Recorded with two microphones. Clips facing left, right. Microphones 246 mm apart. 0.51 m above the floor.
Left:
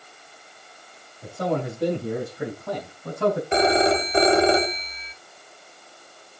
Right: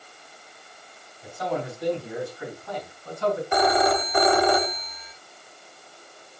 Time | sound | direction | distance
1.2 | a man speaking | 55° left (ahead or behind) | 3.5 m
3.5 | a phone ringing | 25° left (ahead or behind) | 0.9 m